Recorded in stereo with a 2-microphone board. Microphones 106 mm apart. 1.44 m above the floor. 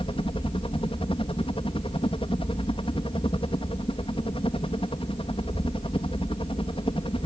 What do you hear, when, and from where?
0.0 s a helicopter: 60° left (ahead or behind)